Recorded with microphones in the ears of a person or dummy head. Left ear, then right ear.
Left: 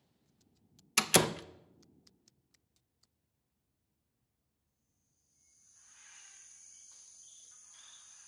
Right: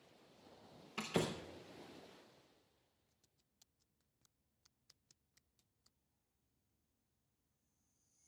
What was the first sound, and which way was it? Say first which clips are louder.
A door slam: left 11 dB; 60° left (ahead or behind).